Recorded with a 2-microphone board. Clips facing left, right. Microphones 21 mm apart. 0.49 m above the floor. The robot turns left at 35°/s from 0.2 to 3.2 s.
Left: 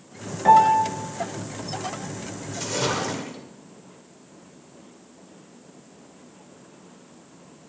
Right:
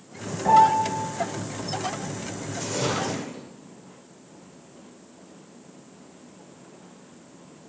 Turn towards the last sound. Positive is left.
turn(degrees=50)  # may be behind; listen again after turning